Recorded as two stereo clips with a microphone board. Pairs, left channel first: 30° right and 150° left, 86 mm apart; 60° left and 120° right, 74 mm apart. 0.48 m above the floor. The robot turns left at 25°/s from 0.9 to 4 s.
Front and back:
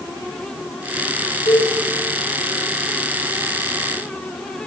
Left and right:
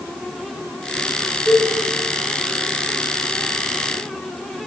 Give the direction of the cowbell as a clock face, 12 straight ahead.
1 o'clock.